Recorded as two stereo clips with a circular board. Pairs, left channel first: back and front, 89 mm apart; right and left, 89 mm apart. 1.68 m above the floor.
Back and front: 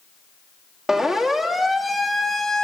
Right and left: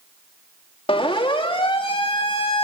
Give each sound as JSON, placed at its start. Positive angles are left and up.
{"t": 0.9, "sound": "a siren", "azimuth_deg": -85, "distance_m": 3.5}